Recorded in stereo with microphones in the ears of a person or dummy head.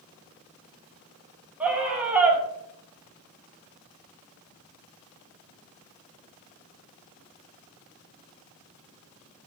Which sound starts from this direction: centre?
A scream, at 1.6 s.